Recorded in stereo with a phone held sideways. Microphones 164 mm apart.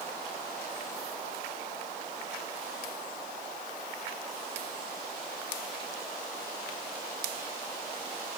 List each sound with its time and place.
Only background noise.